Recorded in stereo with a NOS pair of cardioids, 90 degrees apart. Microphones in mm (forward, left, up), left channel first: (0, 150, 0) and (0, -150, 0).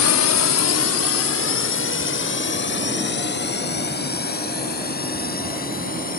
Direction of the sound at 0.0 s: 70° left.